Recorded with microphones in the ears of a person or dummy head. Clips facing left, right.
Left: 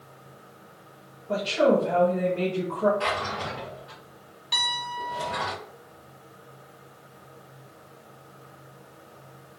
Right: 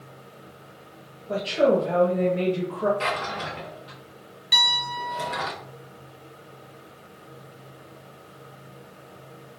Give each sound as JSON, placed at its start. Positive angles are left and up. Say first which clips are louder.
{"t": 1.3, "sound": "a woman speaking", "louder": "right 1 dB", "side_deg": -10, "distance_m": 0.6}
{"t": 3.0, "sound": "a drawer", "louder": "even", "side_deg": -45, "distance_m": 0.9}
{"t": 4.5, "sound": "a piano", "louder": "right 3 dB", "side_deg": -20, "distance_m": 0.5}